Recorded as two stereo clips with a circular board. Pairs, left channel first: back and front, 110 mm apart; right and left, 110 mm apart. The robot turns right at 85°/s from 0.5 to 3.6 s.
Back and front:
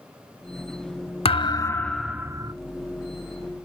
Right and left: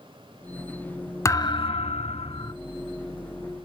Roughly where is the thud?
Behind right.